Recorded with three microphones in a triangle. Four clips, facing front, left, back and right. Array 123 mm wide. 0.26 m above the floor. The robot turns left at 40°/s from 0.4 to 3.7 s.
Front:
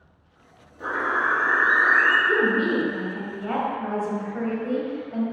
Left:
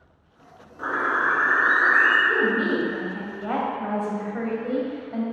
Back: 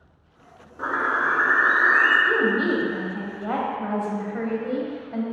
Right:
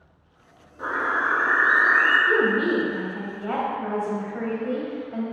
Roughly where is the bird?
Behind.